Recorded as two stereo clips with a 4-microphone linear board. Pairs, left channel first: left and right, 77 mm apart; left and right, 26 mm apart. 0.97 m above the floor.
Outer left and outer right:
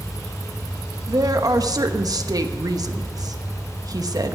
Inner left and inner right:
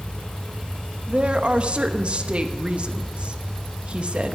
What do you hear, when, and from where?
1.1 s a woman speaking: 55° right (ahead or behind), 1.0 m